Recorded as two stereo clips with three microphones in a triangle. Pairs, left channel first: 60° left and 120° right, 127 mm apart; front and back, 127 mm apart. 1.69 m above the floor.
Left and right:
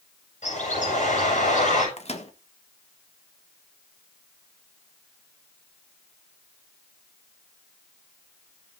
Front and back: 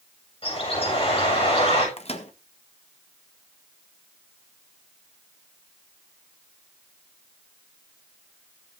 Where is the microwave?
30° left, 1.4 m.